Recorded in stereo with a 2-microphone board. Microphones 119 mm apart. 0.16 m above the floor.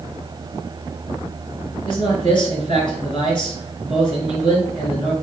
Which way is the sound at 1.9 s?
45° left (ahead or behind).